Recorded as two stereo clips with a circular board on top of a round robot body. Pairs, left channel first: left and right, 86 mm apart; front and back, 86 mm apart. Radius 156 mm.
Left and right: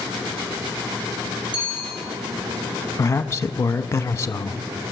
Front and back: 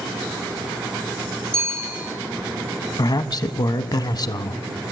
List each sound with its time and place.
1.5 s a bicycle bell: 115° right, 10 m
3.0 s a man speaking: 35° left, 1.1 m